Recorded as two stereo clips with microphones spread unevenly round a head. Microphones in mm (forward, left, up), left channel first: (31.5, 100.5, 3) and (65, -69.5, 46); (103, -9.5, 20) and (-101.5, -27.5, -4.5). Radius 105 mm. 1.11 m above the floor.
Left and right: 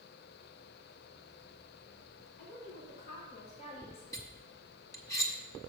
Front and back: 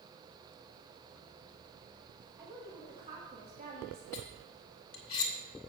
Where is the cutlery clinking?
25° left, 1.5 m.